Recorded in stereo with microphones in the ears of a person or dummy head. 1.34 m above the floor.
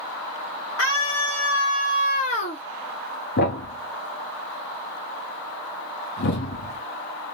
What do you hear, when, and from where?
0.8 s a scream: 80° left, 1.2 m; by 2.6 s 35° left (ahead or behind), 0.8 m
3.4 s a thud: 55° left (ahead or behind), 1.0 m